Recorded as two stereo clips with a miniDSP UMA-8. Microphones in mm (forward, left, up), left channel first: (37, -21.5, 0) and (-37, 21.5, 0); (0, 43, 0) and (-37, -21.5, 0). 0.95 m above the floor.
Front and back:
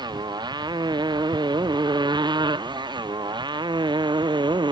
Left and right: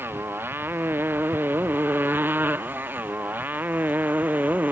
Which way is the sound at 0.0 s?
Straight behind.